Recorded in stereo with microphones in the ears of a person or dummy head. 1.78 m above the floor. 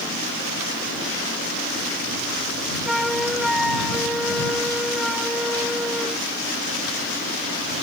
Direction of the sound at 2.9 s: 5° right (ahead or behind).